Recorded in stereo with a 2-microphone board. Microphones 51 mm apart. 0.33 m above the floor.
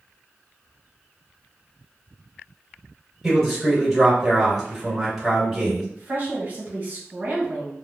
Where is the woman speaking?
35° right (ahead or behind), 1.2 m.